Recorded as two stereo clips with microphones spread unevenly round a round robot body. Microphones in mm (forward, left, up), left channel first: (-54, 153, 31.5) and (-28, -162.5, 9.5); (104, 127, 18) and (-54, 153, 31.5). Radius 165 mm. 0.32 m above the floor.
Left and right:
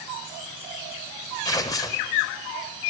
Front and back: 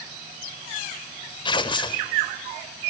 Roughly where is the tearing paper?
Ahead.